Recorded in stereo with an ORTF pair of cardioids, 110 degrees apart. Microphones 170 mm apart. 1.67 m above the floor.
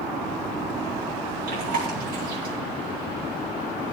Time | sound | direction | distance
1.5 | chewing | 65° right | 5 m